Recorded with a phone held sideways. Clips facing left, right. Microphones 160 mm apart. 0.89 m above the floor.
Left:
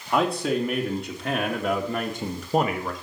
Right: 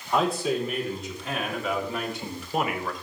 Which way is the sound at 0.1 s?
65° left (ahead or behind).